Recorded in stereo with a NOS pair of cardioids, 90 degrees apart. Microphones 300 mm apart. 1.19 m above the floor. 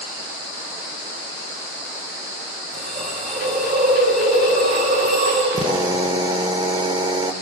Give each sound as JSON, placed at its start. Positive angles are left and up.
{"t": 2.7, "sound": "a hiss", "azimuth_deg": -30, "distance_m": 10.0}
{"t": 5.5, "sound": "a drill", "azimuth_deg": -15, "distance_m": 2.0}